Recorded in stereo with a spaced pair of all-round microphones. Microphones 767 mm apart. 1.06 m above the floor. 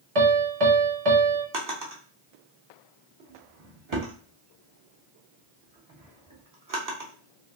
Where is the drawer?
25° right (ahead or behind), 0.8 m.